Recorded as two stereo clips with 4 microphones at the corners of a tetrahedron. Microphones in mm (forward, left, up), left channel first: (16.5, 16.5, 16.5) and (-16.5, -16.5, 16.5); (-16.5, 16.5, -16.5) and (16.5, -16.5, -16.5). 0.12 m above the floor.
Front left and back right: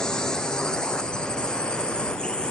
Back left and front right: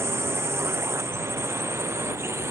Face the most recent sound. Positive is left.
turn(degrees=-25)